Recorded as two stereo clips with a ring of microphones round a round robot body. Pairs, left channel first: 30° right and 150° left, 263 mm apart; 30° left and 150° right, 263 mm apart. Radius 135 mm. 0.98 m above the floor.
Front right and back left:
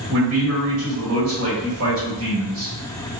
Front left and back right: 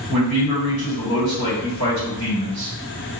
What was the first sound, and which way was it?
A man speaking, 170° right.